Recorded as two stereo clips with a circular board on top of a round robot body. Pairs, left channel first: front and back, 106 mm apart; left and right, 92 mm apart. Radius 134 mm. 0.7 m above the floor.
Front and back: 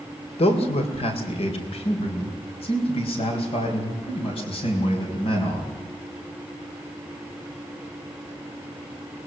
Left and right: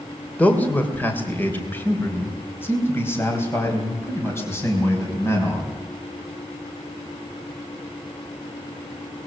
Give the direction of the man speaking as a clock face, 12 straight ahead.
11 o'clock.